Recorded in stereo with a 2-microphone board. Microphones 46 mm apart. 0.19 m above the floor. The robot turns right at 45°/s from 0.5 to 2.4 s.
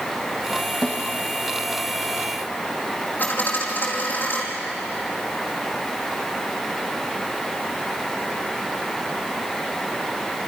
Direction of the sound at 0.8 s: 25° left (ahead or behind).